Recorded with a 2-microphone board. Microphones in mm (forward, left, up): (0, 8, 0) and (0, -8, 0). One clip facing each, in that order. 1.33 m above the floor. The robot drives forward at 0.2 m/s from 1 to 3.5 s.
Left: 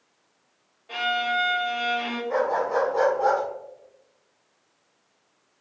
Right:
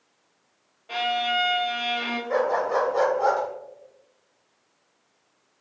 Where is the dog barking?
25° right (ahead or behind), 0.9 m; by 3.4 s 20° right (ahead or behind), 1.0 m.